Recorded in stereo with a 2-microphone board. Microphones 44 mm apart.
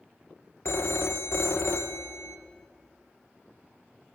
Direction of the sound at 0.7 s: 65° left (ahead or behind).